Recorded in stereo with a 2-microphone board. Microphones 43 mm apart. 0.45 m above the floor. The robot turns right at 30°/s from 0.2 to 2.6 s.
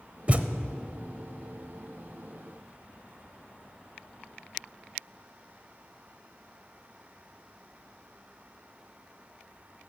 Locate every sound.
0.3 s a thud: 30° right (ahead or behind), 0.7 m; by 0.5 s 40° right (ahead or behind), 0.7 m